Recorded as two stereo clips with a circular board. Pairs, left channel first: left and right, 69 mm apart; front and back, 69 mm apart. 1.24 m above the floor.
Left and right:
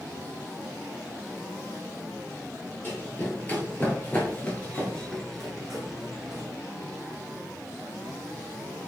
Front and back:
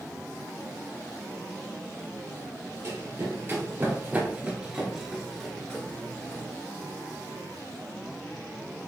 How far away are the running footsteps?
About 1.8 m.